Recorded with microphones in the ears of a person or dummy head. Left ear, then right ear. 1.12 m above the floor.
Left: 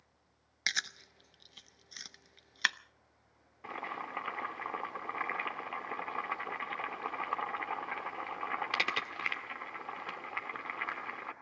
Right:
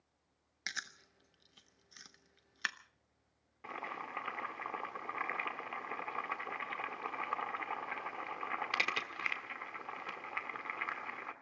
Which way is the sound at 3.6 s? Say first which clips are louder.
Left 3 dB; centre (ahead or behind).